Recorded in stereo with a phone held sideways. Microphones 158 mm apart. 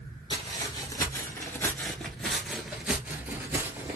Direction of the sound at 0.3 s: 30° left (ahead or behind).